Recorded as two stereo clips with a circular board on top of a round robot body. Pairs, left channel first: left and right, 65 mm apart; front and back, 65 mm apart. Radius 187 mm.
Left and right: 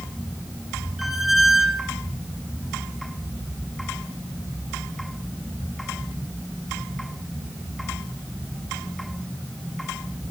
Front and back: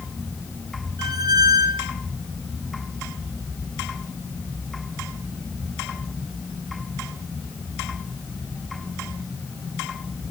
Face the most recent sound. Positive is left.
turn(degrees=-175)